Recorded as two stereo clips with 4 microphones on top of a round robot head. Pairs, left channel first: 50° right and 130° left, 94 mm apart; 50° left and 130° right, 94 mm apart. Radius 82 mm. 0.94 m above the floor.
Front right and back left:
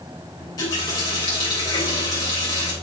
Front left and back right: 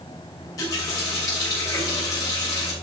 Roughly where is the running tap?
Ahead.